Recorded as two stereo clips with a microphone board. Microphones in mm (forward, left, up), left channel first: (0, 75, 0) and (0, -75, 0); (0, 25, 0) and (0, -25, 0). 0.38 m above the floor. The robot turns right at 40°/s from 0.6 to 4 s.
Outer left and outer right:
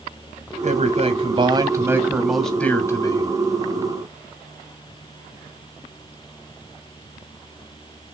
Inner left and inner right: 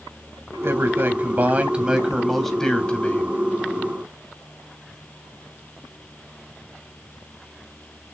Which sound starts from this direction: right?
A man speaking, at 0.6 s.